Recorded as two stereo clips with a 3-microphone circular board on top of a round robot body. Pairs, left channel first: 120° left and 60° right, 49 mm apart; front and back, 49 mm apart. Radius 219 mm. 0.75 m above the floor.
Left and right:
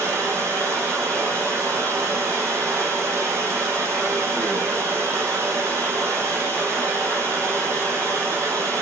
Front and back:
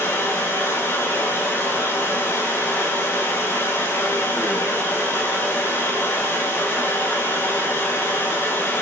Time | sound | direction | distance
0.0 | running water | 25° right | 3 m